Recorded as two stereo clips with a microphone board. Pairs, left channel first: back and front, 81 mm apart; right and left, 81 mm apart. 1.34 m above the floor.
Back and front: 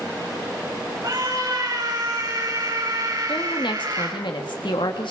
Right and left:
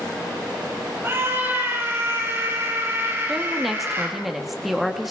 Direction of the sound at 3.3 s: Straight behind.